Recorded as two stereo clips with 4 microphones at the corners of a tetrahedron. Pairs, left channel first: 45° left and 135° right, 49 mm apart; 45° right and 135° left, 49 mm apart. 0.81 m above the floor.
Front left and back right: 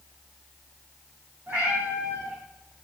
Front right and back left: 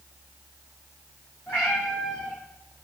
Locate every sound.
1.5 s a cat meowing: 80° right, 5.5 m